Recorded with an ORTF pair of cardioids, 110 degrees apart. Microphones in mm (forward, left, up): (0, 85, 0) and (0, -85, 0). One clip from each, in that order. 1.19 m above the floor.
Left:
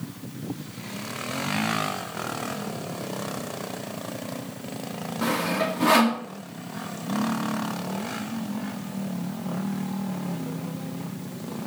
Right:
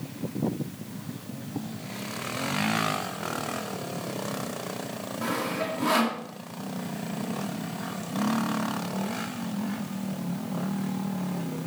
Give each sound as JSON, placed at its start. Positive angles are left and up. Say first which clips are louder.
{"t": 5.2, "sound": "sawing", "louder": "left 4 dB", "azimuth_deg": 35, "distance_m": 1.7}